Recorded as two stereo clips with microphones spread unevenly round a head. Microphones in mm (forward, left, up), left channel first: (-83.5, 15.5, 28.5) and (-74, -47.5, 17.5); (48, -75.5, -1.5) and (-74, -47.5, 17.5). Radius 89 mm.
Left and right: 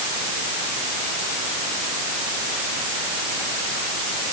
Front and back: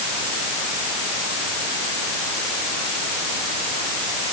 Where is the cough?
I don't hear a cough.